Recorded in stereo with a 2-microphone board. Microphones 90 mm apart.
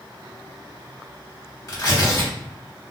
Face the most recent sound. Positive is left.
turn(degrees=35)  # may be behind; listen again after turning